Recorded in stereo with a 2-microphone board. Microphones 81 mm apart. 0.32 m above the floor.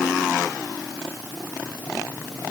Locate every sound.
Only background noise.